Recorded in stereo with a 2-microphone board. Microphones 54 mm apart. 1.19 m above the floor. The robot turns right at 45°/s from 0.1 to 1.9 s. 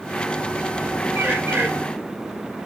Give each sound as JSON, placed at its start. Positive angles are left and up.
{"t": 1.1, "sound": "a bird", "side_deg": -65, "distance_m": 5.0}